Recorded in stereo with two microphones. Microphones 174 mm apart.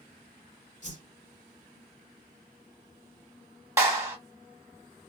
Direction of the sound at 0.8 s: 45° left (ahead or behind).